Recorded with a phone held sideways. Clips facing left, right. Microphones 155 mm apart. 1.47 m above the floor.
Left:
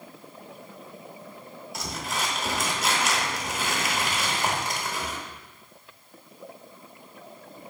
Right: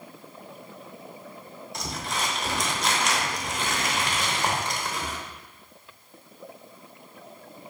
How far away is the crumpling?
About 0.7 m.